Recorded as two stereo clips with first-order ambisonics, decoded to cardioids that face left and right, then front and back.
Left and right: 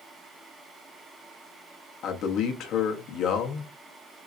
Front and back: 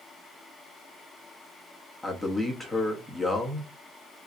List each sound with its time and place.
2.0 s a man speaking: 85° left, 0.7 m